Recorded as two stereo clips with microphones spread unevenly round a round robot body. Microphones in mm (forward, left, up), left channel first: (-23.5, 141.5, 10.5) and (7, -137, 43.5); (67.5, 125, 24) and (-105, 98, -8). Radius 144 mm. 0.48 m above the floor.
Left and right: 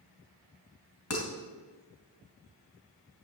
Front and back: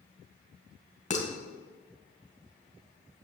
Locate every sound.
1.1 s dishes clattering: 60° left, 2 m